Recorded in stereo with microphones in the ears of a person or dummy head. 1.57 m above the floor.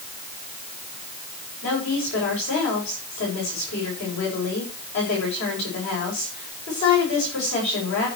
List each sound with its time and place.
1.6 s a woman speaking: 65° left (ahead or behind), 8.5 m